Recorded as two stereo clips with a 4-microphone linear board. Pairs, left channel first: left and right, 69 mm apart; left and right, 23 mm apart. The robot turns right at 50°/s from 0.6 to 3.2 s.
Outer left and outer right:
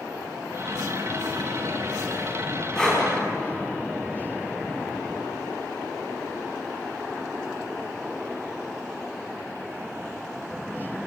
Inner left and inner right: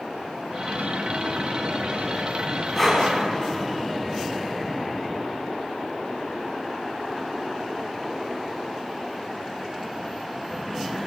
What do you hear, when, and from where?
2.8 s breathing: 5° left (ahead or behind), 4 m; by 3.0 s 20° left (ahead or behind), 4 m